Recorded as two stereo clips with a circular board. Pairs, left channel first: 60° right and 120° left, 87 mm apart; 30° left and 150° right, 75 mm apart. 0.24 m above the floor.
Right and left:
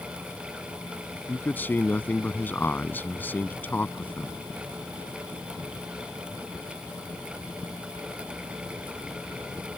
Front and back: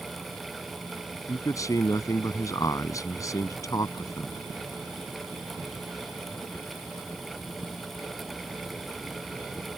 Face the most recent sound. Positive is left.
turn(degrees=5)